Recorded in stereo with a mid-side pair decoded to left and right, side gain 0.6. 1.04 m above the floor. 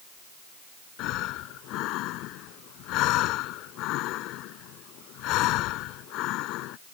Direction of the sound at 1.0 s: 65° left.